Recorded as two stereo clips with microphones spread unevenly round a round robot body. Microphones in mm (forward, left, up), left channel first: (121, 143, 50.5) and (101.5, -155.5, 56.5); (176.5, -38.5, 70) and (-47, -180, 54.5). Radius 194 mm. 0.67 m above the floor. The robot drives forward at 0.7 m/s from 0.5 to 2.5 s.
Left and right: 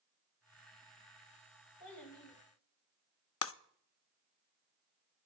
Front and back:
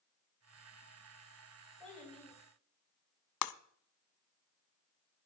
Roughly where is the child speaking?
Behind left.